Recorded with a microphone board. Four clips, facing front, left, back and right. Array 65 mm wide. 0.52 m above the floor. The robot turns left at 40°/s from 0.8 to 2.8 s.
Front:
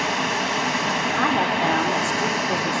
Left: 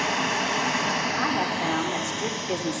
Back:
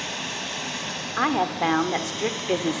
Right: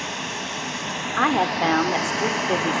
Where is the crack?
I don't hear a crack.